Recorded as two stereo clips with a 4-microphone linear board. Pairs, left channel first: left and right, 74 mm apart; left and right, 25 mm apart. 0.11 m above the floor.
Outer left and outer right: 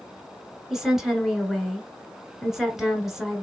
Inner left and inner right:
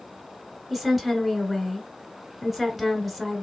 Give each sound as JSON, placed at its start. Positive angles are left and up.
{"t": 0.7, "sound": "a woman speaking", "side_deg": -5, "distance_m": 1.2}